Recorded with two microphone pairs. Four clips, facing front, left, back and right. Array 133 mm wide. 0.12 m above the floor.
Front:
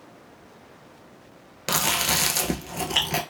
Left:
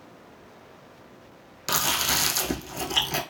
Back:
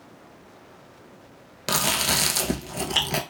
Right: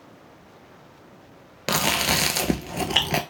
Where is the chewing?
90° right, 0.6 m.